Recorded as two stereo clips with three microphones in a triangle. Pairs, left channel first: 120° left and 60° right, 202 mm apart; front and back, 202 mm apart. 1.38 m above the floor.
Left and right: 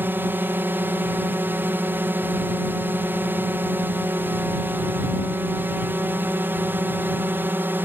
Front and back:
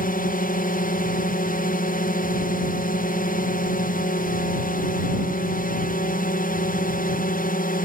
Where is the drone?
15° left.